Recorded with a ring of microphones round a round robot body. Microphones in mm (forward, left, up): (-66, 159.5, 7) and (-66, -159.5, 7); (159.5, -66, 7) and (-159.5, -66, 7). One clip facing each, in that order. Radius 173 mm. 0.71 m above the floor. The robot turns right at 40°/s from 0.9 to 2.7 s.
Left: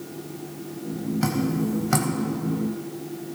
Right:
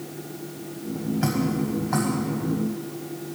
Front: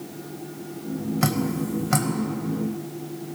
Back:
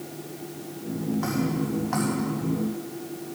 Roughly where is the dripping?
Ahead.